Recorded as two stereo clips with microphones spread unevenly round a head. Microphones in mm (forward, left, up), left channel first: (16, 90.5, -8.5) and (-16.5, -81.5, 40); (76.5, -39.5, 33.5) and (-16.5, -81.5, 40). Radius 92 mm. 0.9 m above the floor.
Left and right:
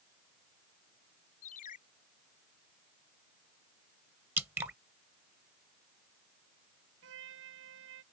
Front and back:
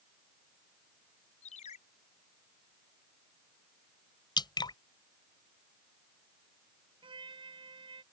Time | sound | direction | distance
1.4 | a ringtone | 30° left | ?
4.4 | dripping | 20° right | ?
7.0 | a trumpet | 120° right | ?